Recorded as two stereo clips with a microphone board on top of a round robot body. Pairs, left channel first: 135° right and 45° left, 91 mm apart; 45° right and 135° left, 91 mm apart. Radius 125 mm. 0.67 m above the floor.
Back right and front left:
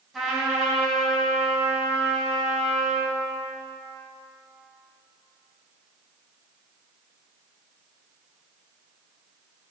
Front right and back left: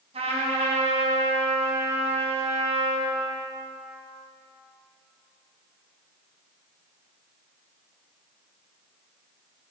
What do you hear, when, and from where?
0.1 s a trumpet: 135° left, 3.5 m